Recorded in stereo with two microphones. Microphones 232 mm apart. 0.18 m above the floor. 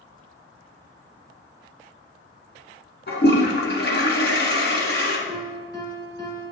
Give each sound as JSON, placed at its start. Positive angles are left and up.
{"t": 3.1, "sound": "a toilet flushing", "side_deg": 45, "distance_m": 1.6}
{"t": 5.3, "sound": "a piano", "side_deg": 20, "distance_m": 2.0}